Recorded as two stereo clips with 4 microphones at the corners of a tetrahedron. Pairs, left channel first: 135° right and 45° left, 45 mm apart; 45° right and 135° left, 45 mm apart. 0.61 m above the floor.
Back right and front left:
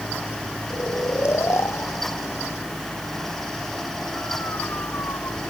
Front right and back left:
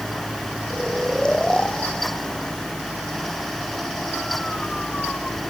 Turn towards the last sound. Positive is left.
turn(degrees=-115)